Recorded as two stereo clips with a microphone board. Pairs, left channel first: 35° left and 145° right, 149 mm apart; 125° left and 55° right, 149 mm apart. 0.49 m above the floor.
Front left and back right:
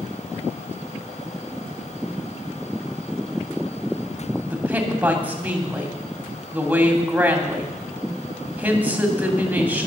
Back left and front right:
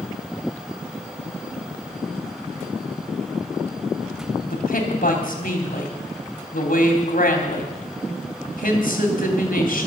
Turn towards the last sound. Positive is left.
turn(degrees=135)